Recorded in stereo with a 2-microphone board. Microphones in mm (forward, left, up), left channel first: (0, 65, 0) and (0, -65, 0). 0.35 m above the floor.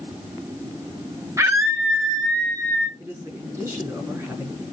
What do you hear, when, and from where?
1.4 s a scream: 25° right (ahead or behind), 1.3 m; by 2.9 s 20° left (ahead or behind), 1.3 m
3.0 s a man speaking: 15° right (ahead or behind), 6 m